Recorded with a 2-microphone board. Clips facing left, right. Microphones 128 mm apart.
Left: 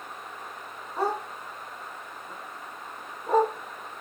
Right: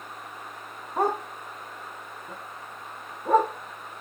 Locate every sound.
1.0 s a dog barking: 50° right (ahead or behind), 2.5 m; by 3.5 s 70° right (ahead or behind), 4 m